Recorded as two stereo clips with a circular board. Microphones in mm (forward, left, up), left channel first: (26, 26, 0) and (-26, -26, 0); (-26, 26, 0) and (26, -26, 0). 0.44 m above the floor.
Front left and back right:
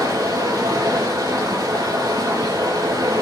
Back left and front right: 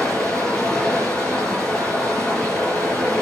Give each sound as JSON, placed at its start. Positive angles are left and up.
{"t": 0.0, "sound": "running water", "azimuth_deg": -150, "distance_m": 6.5}